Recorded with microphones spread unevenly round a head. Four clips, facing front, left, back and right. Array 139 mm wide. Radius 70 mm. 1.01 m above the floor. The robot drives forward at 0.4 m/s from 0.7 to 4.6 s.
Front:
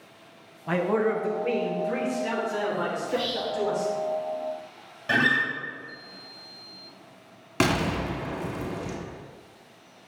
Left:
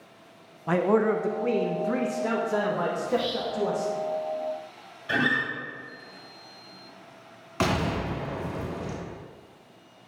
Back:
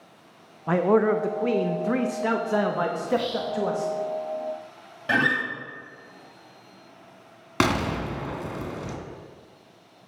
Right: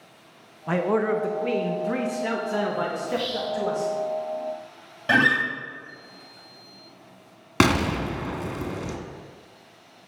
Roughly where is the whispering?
Behind right.